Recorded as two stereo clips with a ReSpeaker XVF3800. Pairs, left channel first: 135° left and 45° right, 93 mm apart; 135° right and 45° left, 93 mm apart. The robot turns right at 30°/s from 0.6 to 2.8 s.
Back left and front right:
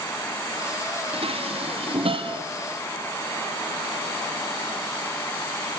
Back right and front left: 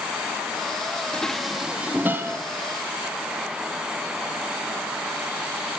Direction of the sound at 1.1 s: 55° right.